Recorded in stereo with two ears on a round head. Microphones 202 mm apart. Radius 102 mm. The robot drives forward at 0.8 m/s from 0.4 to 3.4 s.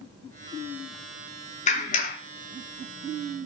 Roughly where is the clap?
Left.